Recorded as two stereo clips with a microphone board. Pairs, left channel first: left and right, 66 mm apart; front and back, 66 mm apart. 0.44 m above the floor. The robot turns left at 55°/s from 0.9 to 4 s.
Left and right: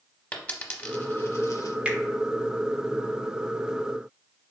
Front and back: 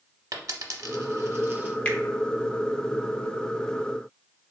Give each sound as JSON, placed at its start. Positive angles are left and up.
{"t": 0.3, "sound": "a dropped coin", "azimuth_deg": 155, "distance_m": 0.6}
{"t": 1.9, "sound": "a finger snap", "azimuth_deg": -45, "distance_m": 0.7}